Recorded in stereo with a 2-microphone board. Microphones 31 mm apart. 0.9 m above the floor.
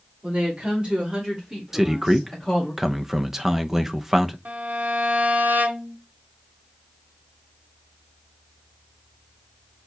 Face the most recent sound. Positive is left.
turn(degrees=-75)  # may be behind; listen again after turning